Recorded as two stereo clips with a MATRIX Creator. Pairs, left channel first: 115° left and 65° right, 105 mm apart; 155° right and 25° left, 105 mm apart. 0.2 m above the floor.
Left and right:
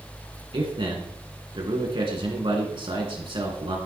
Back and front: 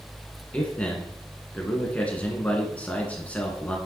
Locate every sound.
0.5 s a man speaking: 85° right, 2.5 m